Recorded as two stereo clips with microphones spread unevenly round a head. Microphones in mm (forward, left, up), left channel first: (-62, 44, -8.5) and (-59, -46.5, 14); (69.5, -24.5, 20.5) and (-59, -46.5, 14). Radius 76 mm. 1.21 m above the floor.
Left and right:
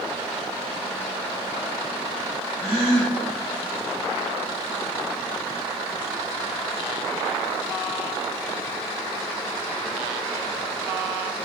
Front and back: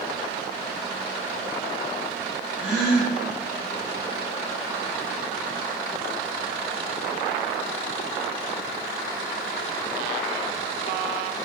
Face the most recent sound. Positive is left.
turn(degrees=-85)